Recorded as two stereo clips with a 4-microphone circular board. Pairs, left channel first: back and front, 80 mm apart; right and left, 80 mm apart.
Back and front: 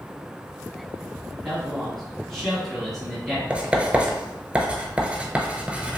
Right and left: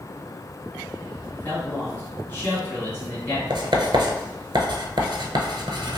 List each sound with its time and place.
1.3 s a man speaking: 100° right, 1.7 m
3.5 s writing: 75° left, 0.6 m